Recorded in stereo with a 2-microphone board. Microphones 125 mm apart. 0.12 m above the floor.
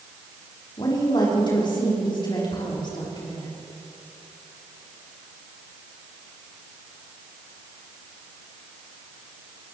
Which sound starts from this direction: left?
A woman speaking, at 0.8 s.